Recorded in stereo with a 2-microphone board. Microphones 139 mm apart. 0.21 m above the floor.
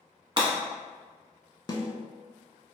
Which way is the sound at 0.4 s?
40° right (ahead or behind).